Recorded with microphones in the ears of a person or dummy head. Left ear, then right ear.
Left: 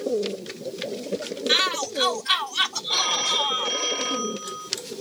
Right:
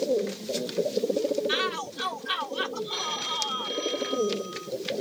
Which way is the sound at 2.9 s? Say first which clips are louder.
Left 8 dB; 40° left (ahead or behind).